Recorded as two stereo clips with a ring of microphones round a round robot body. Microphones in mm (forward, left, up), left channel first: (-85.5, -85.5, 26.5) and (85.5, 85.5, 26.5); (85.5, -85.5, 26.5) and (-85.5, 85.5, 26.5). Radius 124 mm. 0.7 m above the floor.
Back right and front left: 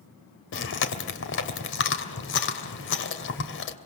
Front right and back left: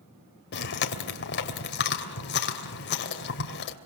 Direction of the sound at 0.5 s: 95° right.